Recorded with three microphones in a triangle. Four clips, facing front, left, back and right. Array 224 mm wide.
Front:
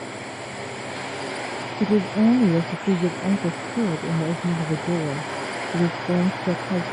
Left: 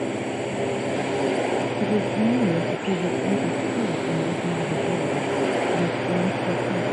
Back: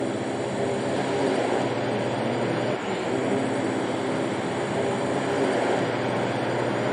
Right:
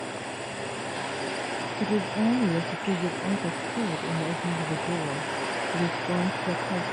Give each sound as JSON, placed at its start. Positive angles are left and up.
{"t": 0.0, "sound": "a drone", "azimuth_deg": 130}
{"t": 1.8, "sound": "a woman speaking", "azimuth_deg": 15}